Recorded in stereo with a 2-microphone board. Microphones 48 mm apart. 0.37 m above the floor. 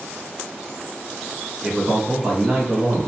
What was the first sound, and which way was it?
A man speaking, 5° right (ahead or behind).